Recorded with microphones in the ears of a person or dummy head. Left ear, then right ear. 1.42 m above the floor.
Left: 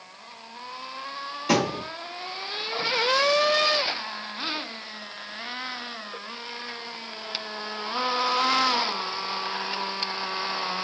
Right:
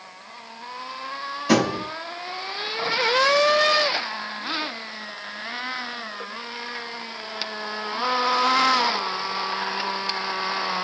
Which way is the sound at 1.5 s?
20° left (ahead or behind).